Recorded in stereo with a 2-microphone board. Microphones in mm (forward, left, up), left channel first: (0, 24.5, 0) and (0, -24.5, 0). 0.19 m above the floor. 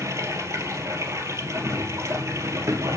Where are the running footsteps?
85° right, 3 m; by 2.9 s 75° right (ahead or behind), 2 m.